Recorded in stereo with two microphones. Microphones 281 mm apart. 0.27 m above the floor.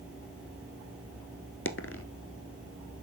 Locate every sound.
1.6 s a dropped coin: 50° left (ahead or behind), 0.9 m